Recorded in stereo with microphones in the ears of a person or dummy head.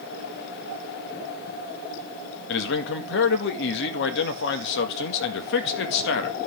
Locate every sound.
2.5 s a man speaking: 65° left (ahead or behind), 1.7 m